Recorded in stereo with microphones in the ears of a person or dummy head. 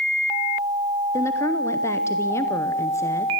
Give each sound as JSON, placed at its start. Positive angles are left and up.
{"t": 1.1, "sound": "a woman speaking", "side_deg": 15, "distance_m": 0.8}